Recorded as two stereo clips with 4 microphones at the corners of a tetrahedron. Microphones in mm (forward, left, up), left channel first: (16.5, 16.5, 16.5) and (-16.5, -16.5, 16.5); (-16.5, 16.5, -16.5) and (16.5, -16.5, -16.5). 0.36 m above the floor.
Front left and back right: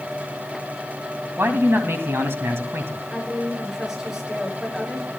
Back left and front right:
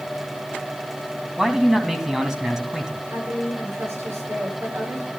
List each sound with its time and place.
1.4 s a man speaking: 125° right, 2.5 m
3.1 s a woman speaking: 50° right, 6 m